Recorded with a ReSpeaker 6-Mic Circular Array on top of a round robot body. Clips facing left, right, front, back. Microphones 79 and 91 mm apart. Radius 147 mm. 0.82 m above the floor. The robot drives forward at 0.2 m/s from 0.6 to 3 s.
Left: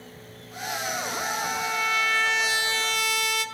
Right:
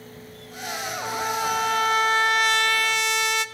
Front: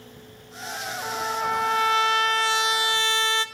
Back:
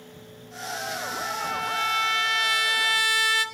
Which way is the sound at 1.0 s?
50° right.